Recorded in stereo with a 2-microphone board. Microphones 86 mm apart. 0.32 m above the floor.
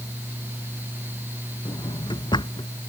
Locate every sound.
1.6 s a drawer: 65° left (ahead or behind)